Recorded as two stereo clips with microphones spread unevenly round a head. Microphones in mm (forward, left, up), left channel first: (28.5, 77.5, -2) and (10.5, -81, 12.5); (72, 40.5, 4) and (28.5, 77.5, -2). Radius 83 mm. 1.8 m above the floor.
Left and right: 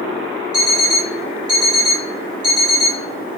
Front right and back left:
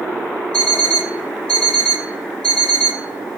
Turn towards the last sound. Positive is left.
turn(degrees=-100)